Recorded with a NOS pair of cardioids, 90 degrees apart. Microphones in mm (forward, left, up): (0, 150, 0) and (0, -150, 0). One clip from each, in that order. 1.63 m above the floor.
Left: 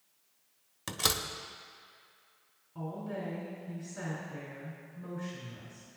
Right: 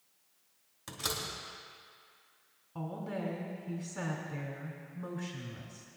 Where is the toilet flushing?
I don't hear a toilet flushing.